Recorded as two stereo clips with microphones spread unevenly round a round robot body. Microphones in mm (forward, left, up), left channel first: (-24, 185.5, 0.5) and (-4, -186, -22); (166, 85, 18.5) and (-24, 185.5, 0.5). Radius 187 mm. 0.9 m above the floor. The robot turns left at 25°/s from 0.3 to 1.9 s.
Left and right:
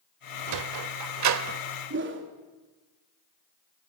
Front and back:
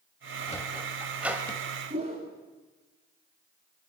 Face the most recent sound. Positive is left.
turn(degrees=-145)